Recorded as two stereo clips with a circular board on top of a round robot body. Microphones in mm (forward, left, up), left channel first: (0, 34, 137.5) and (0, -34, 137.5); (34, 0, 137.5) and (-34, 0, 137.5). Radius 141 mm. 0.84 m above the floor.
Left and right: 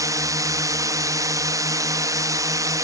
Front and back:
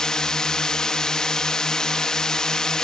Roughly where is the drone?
Right.